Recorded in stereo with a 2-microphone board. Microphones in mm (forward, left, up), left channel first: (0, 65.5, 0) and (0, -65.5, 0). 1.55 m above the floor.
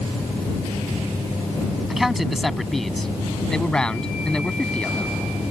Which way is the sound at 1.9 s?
5° right (ahead or behind).